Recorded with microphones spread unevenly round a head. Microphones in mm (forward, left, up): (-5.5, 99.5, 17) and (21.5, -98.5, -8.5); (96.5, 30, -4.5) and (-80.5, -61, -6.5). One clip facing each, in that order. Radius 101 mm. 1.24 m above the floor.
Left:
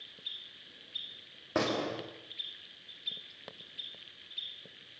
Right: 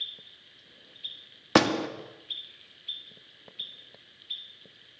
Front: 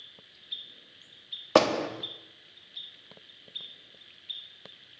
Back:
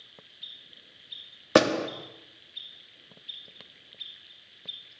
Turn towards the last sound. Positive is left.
turn(degrees=-85)